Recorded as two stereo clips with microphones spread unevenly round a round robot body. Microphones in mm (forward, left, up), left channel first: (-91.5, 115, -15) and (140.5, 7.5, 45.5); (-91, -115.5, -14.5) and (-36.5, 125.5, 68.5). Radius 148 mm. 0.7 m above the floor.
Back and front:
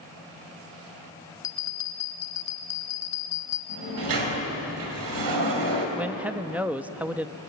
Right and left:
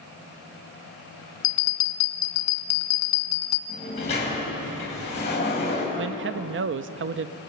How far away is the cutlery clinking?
No cutlery clinking in this recording.